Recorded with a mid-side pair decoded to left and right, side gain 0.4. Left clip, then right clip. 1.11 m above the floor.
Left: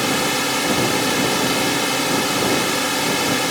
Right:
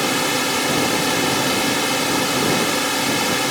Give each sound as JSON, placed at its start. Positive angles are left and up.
{"t": 0.0, "sound": "a drone", "azimuth_deg": -5}